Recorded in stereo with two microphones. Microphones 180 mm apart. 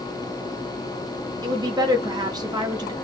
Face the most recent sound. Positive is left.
turn(degrees=-25)  # may be behind; listen again after turning